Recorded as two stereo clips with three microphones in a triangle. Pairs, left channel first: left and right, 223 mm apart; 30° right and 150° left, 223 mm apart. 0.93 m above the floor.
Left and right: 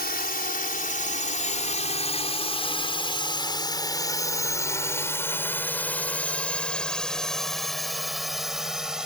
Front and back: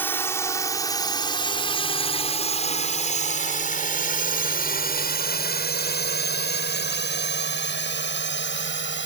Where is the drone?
50° left; by 9.1 s 5° right.